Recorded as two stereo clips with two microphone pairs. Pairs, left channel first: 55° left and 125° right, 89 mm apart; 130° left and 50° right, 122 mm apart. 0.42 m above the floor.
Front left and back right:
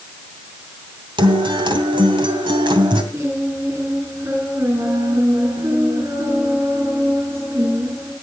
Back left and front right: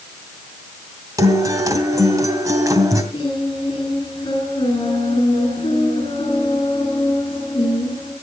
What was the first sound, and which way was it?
A guitar, 110° right.